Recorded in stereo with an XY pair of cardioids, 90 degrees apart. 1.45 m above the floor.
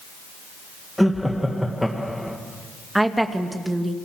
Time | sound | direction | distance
1.0 | laughter | straight ahead | 1.7 m
3.0 | a woman speaking | 10° right | 2 m